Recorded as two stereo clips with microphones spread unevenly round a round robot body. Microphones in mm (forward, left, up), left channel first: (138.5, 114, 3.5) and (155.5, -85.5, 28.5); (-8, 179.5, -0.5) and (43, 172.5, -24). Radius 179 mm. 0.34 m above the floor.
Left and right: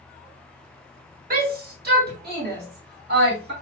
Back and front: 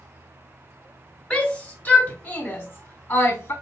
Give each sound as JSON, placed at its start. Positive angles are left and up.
{"t": 1.3, "sound": "a shout", "azimuth_deg": -85, "distance_m": 1.7}